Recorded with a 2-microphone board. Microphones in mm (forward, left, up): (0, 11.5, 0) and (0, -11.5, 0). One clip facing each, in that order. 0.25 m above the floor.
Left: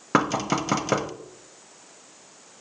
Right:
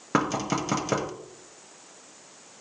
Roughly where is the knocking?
Centre.